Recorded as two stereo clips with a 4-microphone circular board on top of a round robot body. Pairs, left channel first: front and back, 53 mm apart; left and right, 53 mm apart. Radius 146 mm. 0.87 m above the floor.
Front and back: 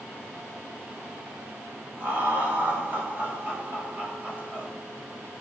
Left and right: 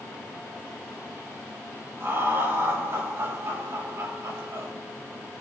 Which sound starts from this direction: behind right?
Laughter, at 2.0 s.